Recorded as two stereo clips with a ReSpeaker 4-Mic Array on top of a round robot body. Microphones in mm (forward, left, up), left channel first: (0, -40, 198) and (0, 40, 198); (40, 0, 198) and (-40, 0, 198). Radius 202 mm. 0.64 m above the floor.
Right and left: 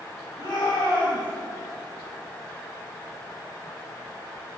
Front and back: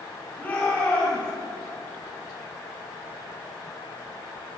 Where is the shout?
70° right, 5.5 m.